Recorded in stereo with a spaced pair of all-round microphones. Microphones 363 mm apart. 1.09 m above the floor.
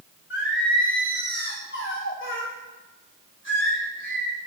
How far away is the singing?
About 3 m.